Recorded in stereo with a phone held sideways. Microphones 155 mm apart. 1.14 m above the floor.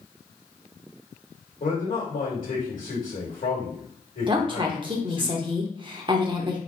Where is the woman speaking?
30° right (ahead or behind), 0.9 m.